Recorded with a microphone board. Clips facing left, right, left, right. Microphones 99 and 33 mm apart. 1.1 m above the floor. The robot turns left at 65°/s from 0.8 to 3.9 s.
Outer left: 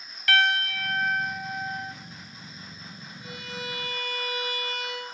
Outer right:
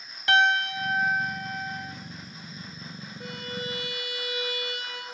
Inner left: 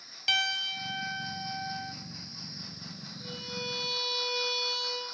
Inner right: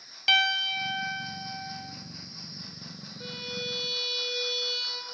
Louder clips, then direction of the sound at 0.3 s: Outer right 2 dB, inner right 5 dB; 150° right.